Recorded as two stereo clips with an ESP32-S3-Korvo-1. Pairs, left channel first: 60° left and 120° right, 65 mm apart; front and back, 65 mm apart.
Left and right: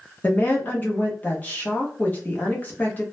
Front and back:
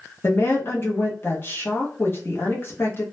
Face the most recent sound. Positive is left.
turn(degrees=15)